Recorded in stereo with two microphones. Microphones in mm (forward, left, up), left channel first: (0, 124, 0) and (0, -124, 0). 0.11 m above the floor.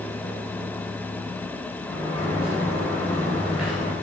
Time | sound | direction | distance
1.9 | a sliding door | 5° right (ahead or behind) | 9 m